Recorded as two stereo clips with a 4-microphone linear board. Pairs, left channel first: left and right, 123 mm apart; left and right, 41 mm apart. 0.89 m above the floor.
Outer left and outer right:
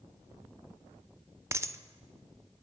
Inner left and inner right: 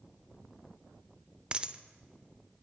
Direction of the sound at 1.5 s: 20° right (ahead or behind).